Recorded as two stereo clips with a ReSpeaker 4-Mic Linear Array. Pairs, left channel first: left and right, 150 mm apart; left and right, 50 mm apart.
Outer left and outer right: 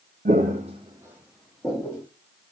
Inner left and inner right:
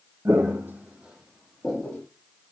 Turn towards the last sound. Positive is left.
turn(degrees=15)  # may be behind; listen again after turning